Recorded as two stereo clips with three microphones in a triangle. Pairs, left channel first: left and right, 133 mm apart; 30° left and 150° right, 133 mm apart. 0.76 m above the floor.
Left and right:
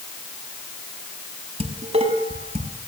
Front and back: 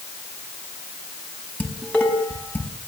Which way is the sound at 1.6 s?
50° right.